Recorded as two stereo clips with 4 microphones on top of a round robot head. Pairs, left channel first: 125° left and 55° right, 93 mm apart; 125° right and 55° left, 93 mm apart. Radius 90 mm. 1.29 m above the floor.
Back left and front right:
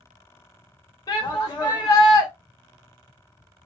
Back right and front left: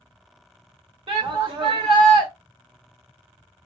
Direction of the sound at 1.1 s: 75° left.